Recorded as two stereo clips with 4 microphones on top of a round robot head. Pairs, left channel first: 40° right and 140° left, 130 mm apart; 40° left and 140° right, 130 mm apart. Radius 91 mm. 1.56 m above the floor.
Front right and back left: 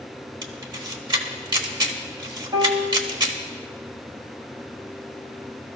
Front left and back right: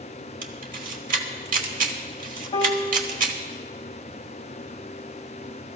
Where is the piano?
85° left, 1.3 m.